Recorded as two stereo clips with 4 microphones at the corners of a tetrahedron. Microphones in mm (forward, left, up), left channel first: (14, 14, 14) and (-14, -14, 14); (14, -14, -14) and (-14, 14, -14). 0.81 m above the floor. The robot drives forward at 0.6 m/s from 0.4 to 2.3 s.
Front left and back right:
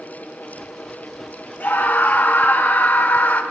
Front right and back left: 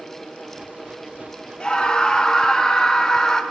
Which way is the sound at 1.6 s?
20° left.